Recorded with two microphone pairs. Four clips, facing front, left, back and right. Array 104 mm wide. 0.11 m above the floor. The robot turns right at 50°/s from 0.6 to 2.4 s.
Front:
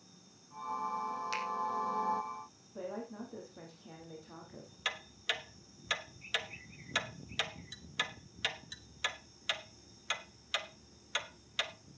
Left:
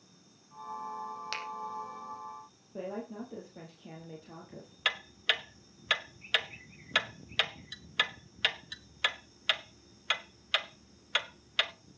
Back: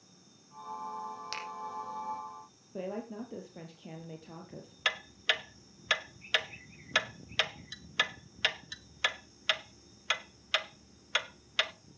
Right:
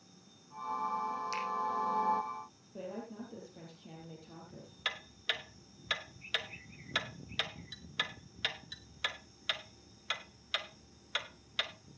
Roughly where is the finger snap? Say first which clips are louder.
Right 3 dB, front 4 dB; left.